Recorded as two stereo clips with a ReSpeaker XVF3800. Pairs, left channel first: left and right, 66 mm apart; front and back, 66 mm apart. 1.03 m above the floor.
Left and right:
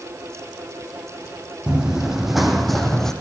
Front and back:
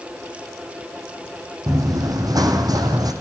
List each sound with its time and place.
1.7 s running footsteps: 165° right, 3 m; by 3.1 s 175° left, 3 m